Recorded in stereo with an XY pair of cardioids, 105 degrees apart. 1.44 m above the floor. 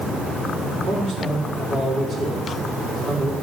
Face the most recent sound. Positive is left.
turn(degrees=-45)